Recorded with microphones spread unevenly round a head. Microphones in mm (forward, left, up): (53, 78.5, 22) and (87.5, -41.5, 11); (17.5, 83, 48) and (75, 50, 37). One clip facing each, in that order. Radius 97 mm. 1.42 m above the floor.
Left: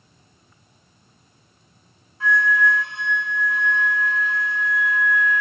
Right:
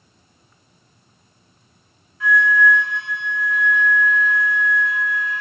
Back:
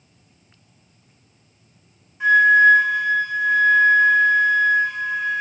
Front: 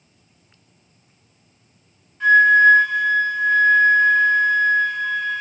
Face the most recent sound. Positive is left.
turn(degrees=105)